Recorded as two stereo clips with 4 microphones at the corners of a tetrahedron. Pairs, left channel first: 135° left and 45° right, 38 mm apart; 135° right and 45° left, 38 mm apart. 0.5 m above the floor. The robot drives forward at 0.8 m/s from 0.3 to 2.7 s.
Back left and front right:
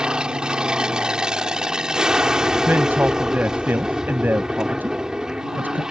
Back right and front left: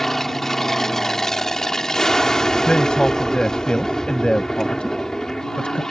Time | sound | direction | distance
0.0 | an aircraft | 65° right | ?
2.7 | a man speaking | 70° right | ?